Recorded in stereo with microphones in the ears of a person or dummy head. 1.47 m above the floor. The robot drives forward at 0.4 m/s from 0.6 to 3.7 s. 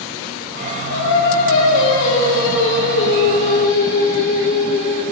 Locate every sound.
0.9 s singing: 75° left (ahead or behind), 3 m; by 5.0 s 55° left (ahead or behind), 3.5 m